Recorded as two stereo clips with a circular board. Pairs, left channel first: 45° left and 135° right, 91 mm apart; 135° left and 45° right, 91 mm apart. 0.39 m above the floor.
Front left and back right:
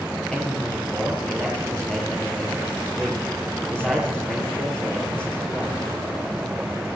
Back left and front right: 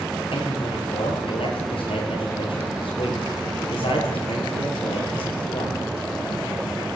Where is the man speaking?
125° left, 9 m.